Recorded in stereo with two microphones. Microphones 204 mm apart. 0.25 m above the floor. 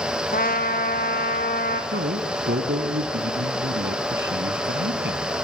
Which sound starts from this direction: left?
A trumpet, at 0.3 s.